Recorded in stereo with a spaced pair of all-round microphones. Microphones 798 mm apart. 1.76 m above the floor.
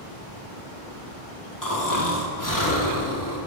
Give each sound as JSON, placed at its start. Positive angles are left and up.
{"t": 1.6, "sound": "snoring", "side_deg": 20, "distance_m": 1.3}